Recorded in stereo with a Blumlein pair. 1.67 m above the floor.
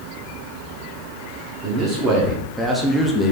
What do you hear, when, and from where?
1.6 s a man speaking: 30° right, 1.1 m; by 3.3 s 20° left, 0.7 m